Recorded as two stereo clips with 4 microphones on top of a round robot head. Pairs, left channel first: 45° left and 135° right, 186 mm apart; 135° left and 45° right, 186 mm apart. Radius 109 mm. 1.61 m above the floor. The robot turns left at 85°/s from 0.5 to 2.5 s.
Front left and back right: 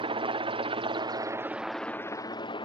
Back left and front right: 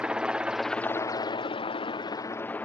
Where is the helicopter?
125° right; by 2.7 s 65° left.